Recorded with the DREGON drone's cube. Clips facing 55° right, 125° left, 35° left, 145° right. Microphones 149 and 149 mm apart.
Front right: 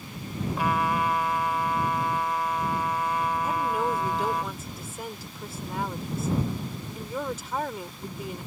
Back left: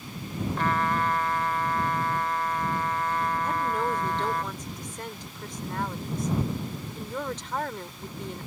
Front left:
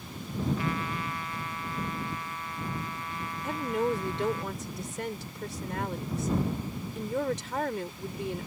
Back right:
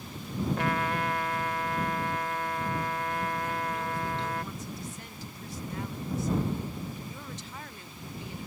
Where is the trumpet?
135° right.